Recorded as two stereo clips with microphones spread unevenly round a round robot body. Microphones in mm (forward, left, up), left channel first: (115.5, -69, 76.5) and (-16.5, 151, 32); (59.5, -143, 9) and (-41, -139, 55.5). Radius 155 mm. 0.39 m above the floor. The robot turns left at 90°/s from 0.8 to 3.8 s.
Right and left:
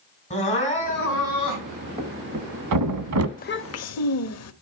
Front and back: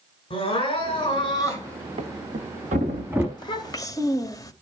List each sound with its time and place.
0.3 s crying: 10° left, 5 m; by 1.9 s 90° right, 5 m
2.0 s a thud: 160° right, 1.1 m; by 3.3 s 85° left, 1.1 m
3.4 s a child speaking: 5° left, 1.5 m; by 4.5 s 35° right, 1.5 m